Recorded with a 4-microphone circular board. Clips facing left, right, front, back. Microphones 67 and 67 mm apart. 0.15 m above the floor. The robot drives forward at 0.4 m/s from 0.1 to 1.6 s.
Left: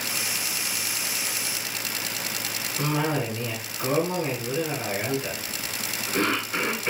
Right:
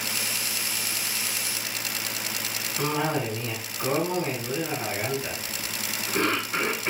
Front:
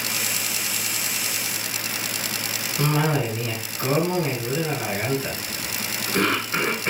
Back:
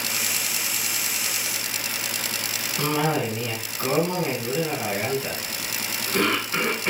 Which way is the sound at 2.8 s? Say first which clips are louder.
Even, front 1 dB; 150° right.